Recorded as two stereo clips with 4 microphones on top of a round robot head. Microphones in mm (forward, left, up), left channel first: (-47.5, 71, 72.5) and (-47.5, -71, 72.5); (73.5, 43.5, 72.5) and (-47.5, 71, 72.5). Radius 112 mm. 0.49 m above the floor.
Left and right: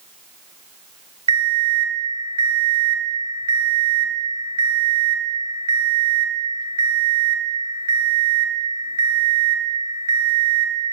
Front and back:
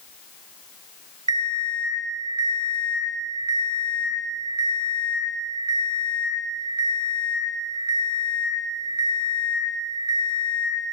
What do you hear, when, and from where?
1.3 s an alarm clock: 145° right, 0.8 m